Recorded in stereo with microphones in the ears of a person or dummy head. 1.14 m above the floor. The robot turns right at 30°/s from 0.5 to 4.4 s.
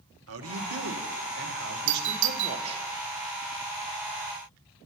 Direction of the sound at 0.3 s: 100° right.